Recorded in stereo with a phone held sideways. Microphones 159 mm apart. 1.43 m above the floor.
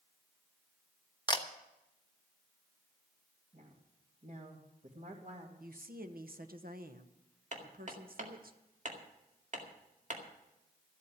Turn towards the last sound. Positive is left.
turn(degrees=-50)  # may be behind; listen again after turning